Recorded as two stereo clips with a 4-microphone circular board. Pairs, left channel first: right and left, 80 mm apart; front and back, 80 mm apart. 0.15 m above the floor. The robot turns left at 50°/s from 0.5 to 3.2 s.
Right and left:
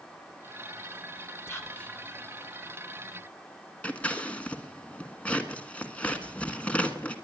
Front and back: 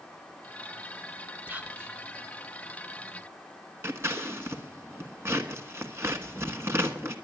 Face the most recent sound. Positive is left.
turn(degrees=-155)